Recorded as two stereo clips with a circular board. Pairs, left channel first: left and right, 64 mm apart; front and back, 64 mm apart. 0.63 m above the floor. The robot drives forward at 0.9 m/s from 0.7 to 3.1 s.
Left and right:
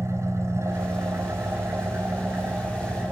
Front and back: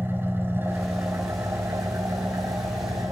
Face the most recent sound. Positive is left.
turn(degrees=-150)